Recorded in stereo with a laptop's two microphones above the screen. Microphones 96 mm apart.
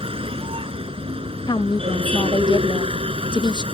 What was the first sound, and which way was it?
A vehicle, 75° right (ahead or behind).